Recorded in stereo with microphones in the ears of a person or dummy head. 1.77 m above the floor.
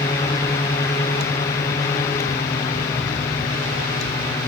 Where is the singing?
No singing in this recording.